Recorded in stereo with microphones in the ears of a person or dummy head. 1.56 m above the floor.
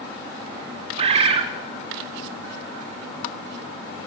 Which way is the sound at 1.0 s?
35° right (ahead or behind).